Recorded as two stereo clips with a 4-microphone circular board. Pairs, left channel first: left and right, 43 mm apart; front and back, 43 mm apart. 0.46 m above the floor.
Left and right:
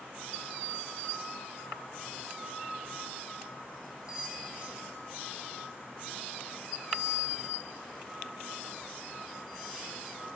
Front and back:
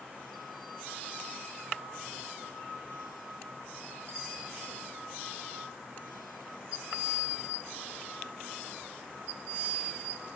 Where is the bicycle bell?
165° right, 6 m.